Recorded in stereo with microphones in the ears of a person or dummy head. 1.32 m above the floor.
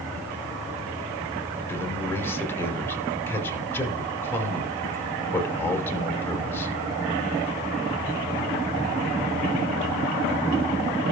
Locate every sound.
1.7 s a man speaking: 10° left (ahead or behind), 5 m